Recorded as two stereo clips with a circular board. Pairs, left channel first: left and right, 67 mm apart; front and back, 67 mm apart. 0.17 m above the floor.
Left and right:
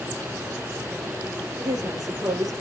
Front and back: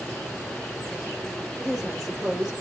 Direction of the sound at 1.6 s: 95° right.